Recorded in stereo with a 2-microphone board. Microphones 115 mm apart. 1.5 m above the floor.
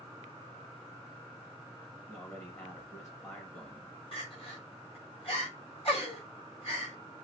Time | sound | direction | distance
2.1 | a man speaking | 25° left (ahead or behind) | 1.9 m
4.1 | crying | 55° left (ahead or behind) | 2.5 m